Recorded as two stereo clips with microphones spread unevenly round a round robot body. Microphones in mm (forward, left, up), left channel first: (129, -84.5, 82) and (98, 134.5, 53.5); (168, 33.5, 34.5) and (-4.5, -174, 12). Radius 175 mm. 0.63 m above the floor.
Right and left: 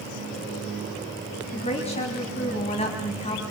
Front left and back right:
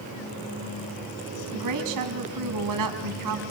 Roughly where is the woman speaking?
Behind right.